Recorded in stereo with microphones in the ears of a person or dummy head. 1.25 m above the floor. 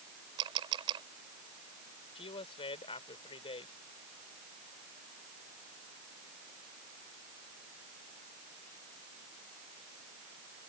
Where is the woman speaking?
25° left (ahead or behind).